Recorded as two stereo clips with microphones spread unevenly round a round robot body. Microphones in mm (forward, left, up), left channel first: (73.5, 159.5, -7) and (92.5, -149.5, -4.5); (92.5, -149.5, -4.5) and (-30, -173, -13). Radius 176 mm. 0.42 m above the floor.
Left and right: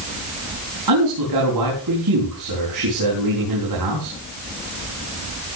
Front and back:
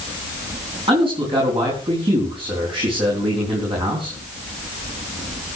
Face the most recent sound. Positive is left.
turn(degrees=-125)